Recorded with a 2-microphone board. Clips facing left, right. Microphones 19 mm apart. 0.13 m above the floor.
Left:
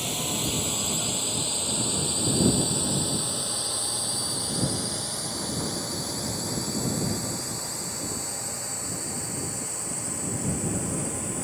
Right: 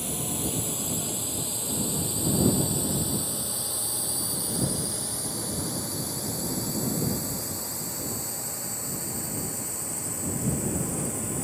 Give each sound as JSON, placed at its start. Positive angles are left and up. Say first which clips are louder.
{"t": 0.0, "sound": "a drone", "louder": "left 3 dB", "side_deg": 35}